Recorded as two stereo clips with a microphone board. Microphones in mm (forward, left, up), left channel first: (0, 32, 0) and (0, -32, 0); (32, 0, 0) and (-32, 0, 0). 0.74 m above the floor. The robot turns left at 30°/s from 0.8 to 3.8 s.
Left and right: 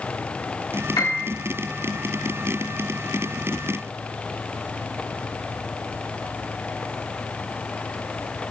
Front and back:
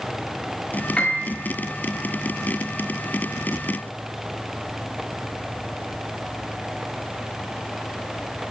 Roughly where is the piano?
Left.